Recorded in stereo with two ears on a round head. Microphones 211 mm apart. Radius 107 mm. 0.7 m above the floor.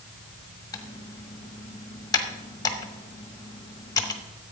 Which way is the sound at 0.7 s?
15° left (ahead or behind).